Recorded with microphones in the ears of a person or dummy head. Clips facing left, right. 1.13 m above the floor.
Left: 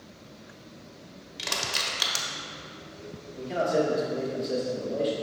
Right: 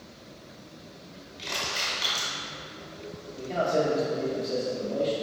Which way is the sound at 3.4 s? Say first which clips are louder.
Even; 10° left (ahead or behind).